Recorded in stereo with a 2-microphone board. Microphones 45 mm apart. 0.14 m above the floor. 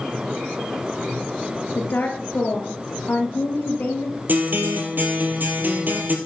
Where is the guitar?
45° right (ahead or behind), 1.6 m.